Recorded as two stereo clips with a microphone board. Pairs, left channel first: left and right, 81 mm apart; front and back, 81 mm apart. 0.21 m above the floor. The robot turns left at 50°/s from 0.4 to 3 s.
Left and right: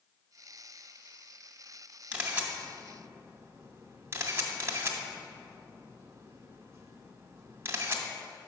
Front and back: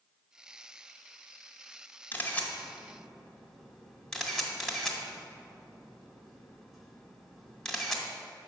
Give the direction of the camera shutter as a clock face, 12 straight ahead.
1 o'clock.